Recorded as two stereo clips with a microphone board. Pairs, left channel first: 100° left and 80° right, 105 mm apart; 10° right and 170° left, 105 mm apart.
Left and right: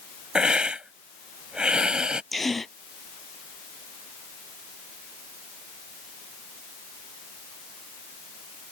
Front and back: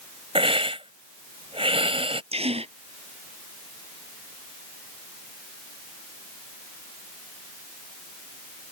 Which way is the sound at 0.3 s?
160° right.